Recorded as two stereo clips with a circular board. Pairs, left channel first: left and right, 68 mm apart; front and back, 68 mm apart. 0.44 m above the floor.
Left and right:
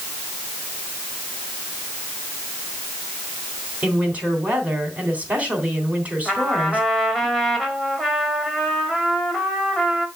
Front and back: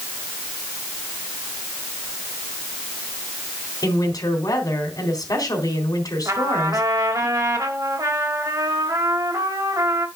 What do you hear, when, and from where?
3.8 s a woman speaking: 25° right, 3 m
6.2 s a trumpet: straight behind, 2 m